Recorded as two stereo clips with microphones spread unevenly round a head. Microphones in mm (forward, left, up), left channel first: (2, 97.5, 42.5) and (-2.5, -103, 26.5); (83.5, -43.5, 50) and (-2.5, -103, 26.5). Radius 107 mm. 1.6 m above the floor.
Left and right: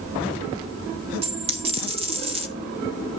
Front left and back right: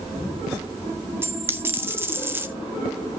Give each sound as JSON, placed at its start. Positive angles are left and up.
{"t": 1.2, "sound": "a dropped coin", "azimuth_deg": -80, "distance_m": 0.9}